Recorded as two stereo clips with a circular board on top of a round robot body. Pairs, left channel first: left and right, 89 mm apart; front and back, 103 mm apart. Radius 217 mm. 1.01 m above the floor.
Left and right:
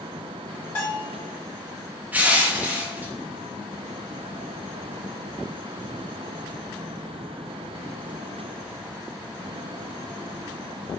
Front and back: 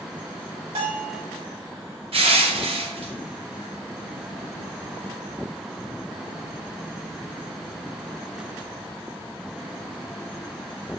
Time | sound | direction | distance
0.8 | a bell | 155° left | 1.9 m
2.1 | crushing | 160° right | 1.1 m